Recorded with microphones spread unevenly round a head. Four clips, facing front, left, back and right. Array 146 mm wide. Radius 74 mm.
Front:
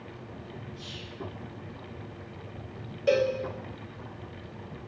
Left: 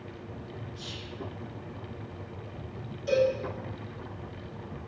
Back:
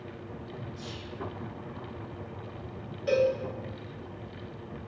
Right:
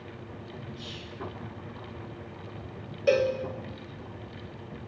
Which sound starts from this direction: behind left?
Whispering, at 0.8 s.